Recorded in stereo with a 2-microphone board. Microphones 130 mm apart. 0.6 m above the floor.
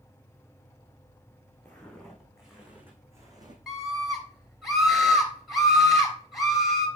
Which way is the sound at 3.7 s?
Centre (ahead or behind).